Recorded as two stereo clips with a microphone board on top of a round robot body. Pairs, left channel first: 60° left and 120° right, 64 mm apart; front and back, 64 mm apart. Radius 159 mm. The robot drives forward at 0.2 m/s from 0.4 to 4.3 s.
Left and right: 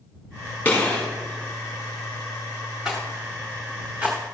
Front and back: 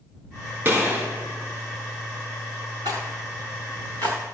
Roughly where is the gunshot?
Behind left.